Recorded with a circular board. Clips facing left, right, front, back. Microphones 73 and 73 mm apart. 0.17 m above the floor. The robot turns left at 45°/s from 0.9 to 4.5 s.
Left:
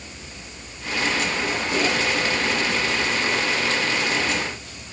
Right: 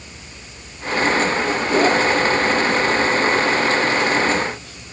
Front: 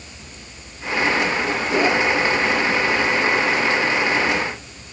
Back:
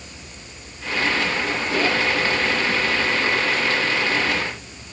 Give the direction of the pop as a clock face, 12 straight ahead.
I don't hear a pop.